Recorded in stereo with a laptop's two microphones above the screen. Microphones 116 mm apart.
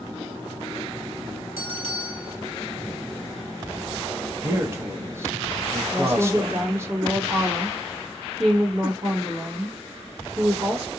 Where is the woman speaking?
60° right (ahead or behind), 1.4 m.